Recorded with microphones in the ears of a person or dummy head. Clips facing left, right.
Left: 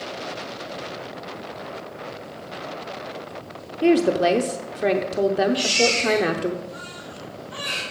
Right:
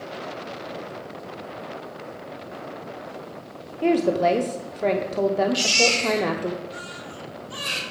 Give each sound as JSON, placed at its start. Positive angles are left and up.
{"t": 3.8, "sound": "a woman speaking", "side_deg": 10, "distance_m": 0.5}
{"t": 5.5, "sound": "a baby crying", "side_deg": -65, "distance_m": 2.5}